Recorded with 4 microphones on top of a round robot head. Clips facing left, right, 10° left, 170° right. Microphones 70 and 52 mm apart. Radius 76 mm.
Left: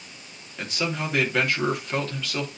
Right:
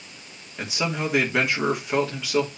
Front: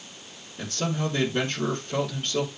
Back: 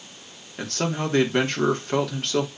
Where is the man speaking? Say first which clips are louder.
Right 2 dB, back 2 dB; 170° right, 3 m.